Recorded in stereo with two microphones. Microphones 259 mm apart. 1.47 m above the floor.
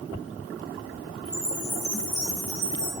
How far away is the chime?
About 4.5 m.